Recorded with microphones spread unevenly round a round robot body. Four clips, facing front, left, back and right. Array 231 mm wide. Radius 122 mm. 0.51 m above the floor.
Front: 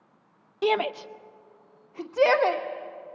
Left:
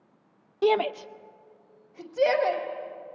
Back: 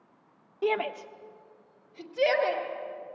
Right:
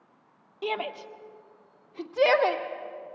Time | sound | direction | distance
0.6 | a shout | 60° left | 0.7 m